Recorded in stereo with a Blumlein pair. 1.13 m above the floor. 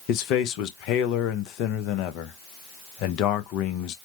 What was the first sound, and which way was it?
A man speaking, 40° left.